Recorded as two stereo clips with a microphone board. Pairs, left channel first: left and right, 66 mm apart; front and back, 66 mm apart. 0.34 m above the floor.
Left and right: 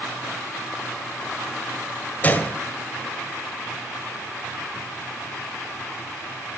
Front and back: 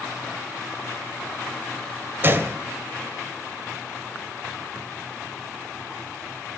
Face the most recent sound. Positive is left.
turn(degrees=140)